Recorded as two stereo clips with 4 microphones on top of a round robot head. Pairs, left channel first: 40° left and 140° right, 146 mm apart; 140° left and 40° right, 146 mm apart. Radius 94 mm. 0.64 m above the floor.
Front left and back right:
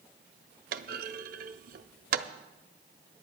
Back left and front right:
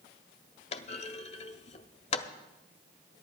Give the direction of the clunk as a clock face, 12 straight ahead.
6 o'clock.